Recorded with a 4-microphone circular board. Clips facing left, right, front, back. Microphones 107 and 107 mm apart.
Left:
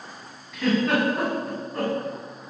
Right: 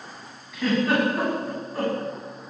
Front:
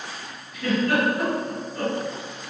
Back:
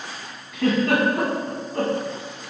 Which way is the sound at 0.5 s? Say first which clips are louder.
Even, back 3 dB; straight behind.